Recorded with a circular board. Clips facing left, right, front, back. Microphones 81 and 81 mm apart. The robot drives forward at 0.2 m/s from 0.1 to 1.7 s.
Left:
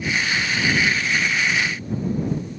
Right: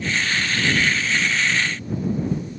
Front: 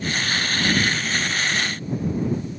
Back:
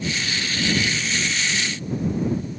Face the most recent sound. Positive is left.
No sound to turn to.